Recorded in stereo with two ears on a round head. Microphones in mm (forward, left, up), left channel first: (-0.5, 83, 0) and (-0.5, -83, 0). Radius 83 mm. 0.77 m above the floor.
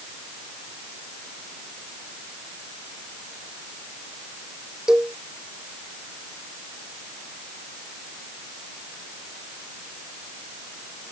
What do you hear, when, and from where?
4.9 s a cowbell: 5° right (ahead or behind)